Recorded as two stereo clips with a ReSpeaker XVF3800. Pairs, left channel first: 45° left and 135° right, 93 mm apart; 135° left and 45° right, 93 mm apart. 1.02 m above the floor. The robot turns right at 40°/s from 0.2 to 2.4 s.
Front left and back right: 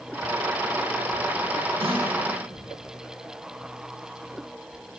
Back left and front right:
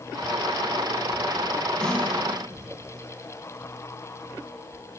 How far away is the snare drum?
About 6.5 m.